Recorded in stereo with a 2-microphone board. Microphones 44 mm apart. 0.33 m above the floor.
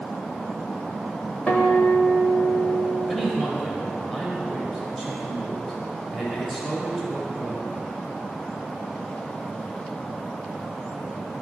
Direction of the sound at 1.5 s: 30° left (ahead or behind).